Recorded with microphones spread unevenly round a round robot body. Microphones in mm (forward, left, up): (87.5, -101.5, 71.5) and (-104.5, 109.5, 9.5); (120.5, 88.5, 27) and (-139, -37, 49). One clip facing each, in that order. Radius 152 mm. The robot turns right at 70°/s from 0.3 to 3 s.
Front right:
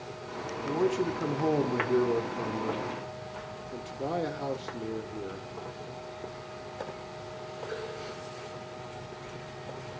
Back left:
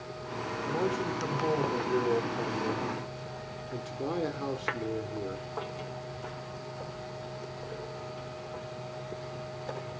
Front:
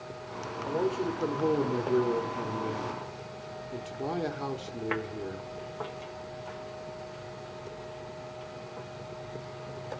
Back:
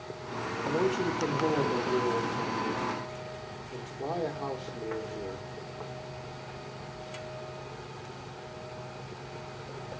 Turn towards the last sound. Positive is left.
turn(degrees=65)